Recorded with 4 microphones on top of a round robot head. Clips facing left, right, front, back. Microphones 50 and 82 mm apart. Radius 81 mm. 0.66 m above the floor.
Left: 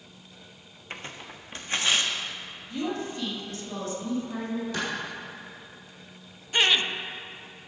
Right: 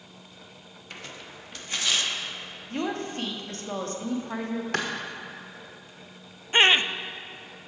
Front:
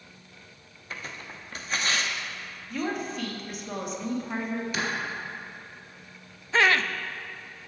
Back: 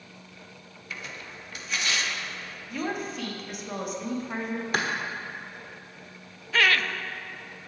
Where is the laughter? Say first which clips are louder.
Right 4 dB, front 2 dB; 50° right, 0.6 m.